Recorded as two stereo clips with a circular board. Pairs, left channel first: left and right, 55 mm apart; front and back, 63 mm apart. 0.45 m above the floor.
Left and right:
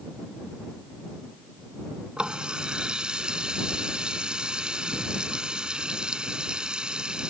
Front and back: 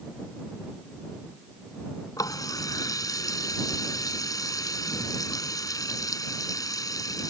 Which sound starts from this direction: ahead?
A running tap, at 2.2 s.